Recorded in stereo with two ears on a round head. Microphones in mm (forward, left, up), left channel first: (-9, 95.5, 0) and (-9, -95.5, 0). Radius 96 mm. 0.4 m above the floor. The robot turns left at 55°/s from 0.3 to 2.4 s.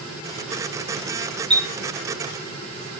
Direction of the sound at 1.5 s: 25° right (ahead or behind).